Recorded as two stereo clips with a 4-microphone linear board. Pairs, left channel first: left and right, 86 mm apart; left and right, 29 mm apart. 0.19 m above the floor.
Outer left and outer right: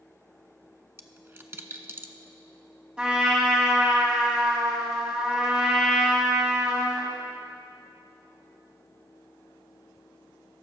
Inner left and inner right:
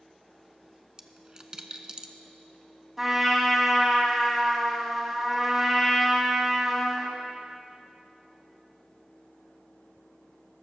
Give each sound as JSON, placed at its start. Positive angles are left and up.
{"t": 1.0, "sound": "a dropped coin", "side_deg": -30, "distance_m": 0.6}
{"t": 3.0, "sound": "a trumpet", "side_deg": -15, "distance_m": 1.6}